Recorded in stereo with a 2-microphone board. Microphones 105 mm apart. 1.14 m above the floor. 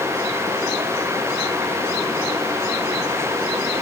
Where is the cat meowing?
I don't hear a cat meowing.